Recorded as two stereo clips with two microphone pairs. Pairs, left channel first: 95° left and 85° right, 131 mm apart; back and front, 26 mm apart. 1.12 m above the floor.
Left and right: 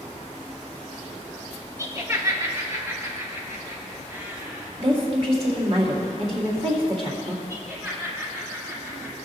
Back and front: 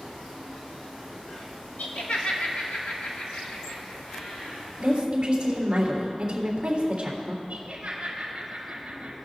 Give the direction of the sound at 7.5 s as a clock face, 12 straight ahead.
12 o'clock.